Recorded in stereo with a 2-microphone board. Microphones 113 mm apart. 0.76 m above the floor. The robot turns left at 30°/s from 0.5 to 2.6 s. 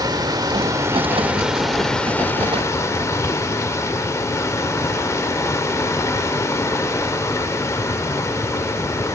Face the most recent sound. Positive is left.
turn(degrees=155)